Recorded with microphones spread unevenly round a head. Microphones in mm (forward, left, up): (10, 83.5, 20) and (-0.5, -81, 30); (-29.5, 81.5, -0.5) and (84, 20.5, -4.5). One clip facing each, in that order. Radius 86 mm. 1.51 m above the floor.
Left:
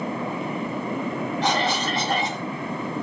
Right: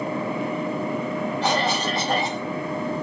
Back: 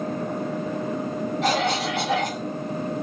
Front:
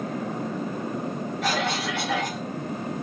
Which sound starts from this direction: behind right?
A cough, at 1.4 s.